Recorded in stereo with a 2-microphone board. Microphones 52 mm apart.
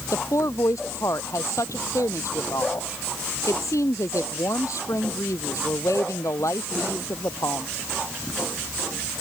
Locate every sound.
0.1 s a woman speaking: 80° left